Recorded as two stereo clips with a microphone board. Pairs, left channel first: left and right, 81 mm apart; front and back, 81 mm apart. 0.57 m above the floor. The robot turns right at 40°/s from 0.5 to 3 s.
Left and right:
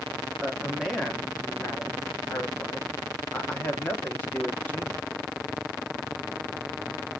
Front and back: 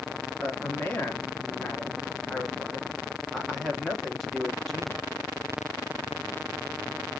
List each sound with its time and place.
0.4 s a man speaking: 15° right, 0.9 m; by 5.1 s 85° left, 0.9 m